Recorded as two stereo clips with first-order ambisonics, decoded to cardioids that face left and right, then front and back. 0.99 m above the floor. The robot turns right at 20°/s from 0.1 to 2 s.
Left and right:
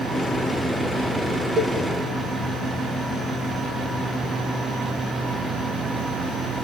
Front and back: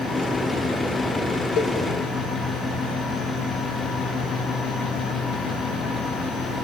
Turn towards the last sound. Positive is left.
turn(degrees=-20)